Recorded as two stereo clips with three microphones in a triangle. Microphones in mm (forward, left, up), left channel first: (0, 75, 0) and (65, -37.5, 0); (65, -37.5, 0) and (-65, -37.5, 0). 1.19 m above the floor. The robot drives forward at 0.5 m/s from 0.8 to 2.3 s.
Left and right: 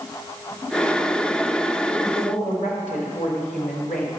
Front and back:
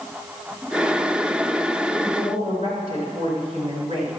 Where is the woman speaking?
140° left, 4 m.